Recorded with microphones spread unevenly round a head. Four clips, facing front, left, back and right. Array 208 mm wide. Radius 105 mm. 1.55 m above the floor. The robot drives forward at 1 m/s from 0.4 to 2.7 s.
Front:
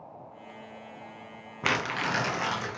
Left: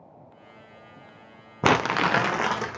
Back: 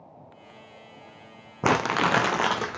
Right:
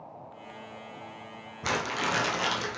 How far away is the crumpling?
About 0.6 m.